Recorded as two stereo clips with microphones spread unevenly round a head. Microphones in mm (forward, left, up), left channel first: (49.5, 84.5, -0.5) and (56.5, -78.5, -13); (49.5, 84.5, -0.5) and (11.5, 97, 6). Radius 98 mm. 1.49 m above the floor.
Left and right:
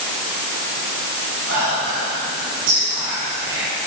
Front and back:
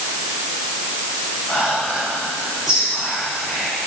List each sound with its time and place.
1.5 s whispering: 110° right, 7 m